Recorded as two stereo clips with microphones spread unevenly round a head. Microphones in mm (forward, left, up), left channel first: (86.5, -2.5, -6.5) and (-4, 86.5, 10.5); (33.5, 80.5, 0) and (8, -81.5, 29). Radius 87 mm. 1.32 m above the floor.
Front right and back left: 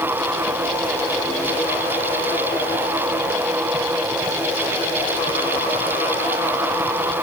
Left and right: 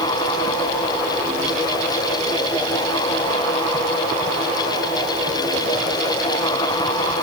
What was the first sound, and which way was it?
Only background noise.